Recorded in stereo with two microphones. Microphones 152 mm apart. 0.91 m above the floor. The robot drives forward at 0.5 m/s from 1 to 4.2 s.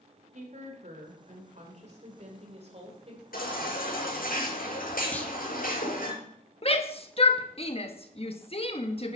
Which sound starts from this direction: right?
A woman speaking, at 0.3 s.